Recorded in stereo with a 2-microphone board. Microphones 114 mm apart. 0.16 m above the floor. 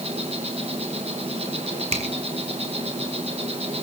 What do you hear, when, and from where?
0.0 s an insect: 60° right (ahead or behind), 3 m
1.9 s a finger snap: 65° right (ahead or behind), 3.5 m